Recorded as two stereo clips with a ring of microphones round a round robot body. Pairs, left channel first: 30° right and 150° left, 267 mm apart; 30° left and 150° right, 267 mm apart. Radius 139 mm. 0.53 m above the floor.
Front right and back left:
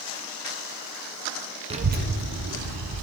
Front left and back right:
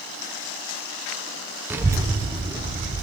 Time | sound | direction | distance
1.7 | a child speaking | 140° left | 0.5 m